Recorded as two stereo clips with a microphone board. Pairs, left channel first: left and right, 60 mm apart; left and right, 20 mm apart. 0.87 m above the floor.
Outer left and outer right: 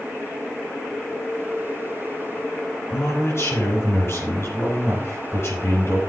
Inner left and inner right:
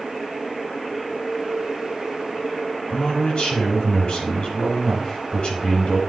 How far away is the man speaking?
About 6 m.